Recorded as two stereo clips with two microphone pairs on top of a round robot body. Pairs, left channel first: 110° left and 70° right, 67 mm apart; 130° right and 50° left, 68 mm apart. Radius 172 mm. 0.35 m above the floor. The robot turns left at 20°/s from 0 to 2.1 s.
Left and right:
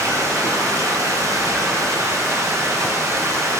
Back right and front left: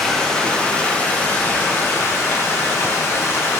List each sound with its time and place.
0.0 s running water: 50° right, 1.5 m; by 3.6 s 90° right, 1.5 m